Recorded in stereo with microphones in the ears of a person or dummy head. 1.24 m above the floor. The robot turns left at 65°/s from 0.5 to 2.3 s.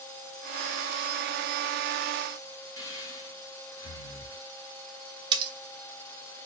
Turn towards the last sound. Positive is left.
turn(degrees=-30)  # may be behind; listen again after turning